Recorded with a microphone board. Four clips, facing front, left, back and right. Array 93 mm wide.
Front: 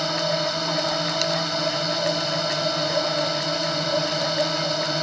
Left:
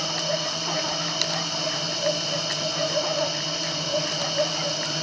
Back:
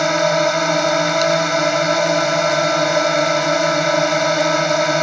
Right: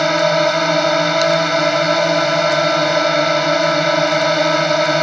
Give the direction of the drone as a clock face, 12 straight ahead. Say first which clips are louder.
Right 15 dB, back 9 dB; 4 o'clock.